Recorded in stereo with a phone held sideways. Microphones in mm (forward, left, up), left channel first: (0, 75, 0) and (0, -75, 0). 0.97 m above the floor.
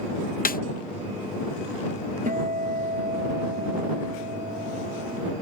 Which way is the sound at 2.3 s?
60° right (ahead or behind).